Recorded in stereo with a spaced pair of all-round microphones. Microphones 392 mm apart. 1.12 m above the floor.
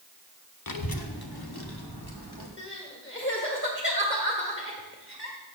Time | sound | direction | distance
0.7 | a child speaking | 55° left (ahead or behind) | 0.7 m
2.6 | crying | 30° left (ahead or behind) | 1.7 m